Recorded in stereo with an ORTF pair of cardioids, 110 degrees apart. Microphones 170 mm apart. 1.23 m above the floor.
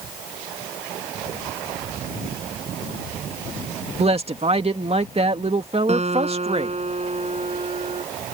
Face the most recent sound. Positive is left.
turn(degrees=-40)